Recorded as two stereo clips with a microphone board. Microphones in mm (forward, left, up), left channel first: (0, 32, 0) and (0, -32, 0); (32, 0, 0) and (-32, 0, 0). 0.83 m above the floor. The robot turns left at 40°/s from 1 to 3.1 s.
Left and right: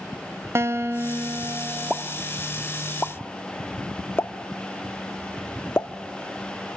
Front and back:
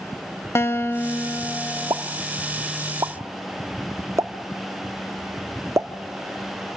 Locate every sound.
0.6 s a guitar: 45° right, 0.7 m; by 2.0 s 85° right, 0.7 m
1.9 s a pop: 170° right, 0.6 m; by 5.9 s 145° left, 0.6 m